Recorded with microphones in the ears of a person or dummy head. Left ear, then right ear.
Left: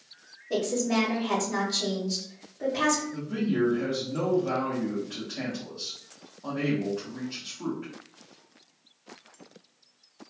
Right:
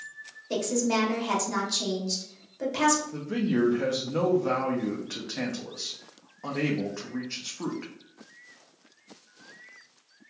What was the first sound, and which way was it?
A woman speaking, 80° right.